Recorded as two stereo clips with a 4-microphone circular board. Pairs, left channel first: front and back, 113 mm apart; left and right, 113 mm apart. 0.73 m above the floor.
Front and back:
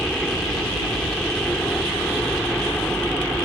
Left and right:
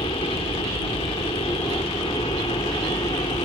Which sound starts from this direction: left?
A helicopter, at 0.0 s.